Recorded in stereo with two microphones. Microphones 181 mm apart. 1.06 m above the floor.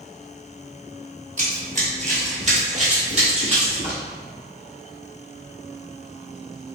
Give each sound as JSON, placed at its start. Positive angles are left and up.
{"t": 1.4, "sound": "running footsteps", "side_deg": -45, "distance_m": 1.4}